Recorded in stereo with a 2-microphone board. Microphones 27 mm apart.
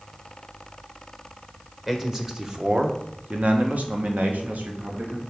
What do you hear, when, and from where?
1.9 s a man speaking: 10° right (ahead or behind), 1.1 m; by 5.2 s 80° right, 1.6 m